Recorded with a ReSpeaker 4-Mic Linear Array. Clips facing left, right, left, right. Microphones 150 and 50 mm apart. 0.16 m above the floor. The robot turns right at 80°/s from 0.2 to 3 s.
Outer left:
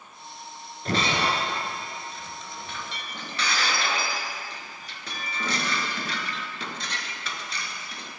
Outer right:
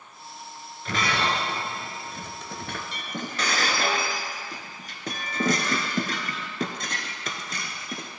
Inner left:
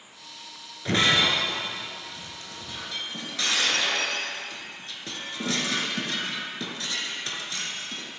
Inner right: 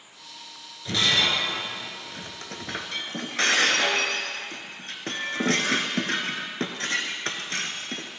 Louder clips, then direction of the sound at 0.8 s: Outer left 1 dB, inner left 2 dB; 40° left (ahead or behind).